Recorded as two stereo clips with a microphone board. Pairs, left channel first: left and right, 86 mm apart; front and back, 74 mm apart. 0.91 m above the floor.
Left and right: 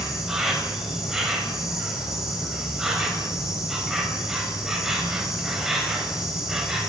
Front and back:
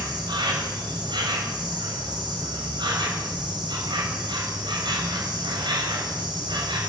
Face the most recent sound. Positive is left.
turn(degrees=-175)